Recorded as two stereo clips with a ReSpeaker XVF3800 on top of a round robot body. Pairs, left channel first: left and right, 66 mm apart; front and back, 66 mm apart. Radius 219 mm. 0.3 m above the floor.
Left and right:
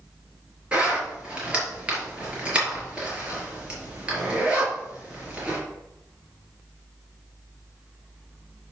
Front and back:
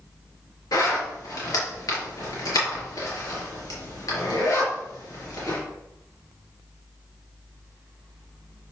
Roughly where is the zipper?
Ahead.